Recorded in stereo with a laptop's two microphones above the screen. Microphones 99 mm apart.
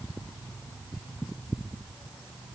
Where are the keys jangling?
No keys jangling in this recording.